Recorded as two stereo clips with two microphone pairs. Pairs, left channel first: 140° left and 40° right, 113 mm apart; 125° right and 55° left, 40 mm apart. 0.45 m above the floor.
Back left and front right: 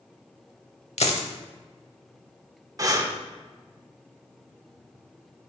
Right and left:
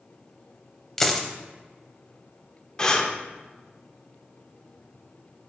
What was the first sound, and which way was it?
A dropped coin, 155° left.